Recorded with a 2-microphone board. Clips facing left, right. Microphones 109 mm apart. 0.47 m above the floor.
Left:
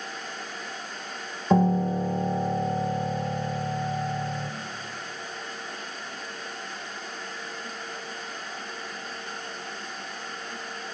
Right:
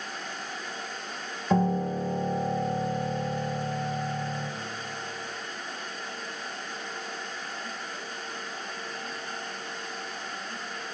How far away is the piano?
About 0.8 m.